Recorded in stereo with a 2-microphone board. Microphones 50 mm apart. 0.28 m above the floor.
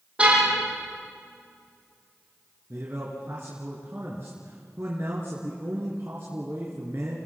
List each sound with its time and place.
0.2 s a car horn: 20° right (ahead or behind), 7 m
2.7 s a man speaking: 50° right (ahead or behind), 3.5 m